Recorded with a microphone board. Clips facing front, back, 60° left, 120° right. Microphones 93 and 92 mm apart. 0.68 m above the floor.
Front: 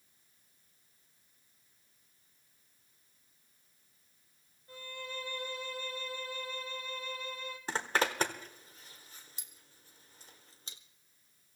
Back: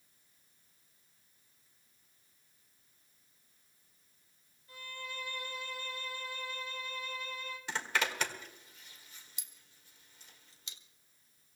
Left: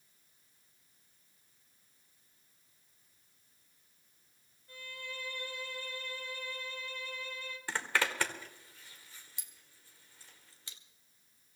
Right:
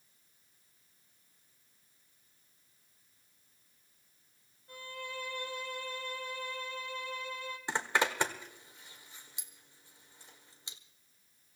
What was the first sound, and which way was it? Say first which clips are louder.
A violin: front 2 dB, right 4 dB; 55° right.